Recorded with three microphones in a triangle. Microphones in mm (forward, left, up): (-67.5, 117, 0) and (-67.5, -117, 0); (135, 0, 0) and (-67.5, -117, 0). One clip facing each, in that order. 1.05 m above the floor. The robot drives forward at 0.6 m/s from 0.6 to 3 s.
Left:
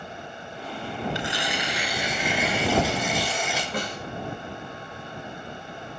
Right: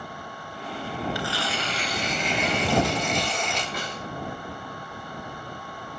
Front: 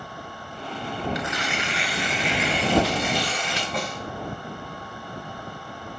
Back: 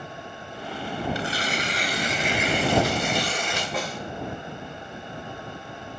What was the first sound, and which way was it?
Tearing paper, 160° left.